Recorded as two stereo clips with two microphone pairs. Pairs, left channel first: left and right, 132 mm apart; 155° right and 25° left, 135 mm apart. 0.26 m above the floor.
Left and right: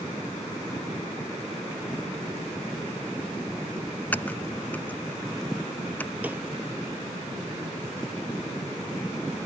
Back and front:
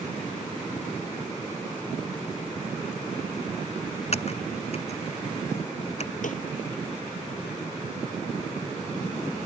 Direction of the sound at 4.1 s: 165° left.